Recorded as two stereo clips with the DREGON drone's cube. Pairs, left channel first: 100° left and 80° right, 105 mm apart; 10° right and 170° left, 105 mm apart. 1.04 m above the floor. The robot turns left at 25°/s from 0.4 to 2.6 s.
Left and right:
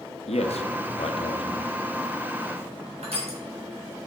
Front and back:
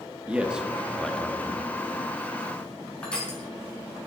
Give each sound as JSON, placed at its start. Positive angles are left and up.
{"t": 0.3, "sound": "a man speaking", "azimuth_deg": 90, "distance_m": 0.9}
{"t": 3.0, "sound": "crushing", "azimuth_deg": -90, "distance_m": 2.5}